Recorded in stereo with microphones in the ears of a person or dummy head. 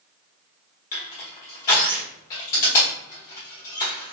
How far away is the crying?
No crying in this recording.